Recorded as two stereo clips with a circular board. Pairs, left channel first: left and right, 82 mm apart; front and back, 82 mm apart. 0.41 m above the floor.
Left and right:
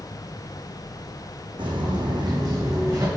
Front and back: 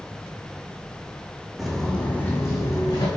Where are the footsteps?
95° right, 1.3 m; by 3.1 s 35° right, 1.8 m.